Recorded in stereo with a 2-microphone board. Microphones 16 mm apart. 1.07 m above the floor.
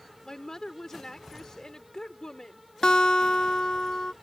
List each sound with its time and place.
0.2 s a woman speaking: 35° left (ahead or behind)
2.8 s a guitar: 75° left (ahead or behind)